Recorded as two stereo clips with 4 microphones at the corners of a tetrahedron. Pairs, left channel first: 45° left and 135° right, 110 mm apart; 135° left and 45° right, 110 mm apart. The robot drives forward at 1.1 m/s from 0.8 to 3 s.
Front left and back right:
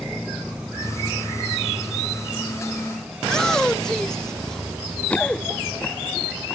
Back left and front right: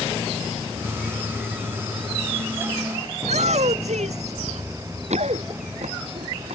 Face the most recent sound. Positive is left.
turn(degrees=-40)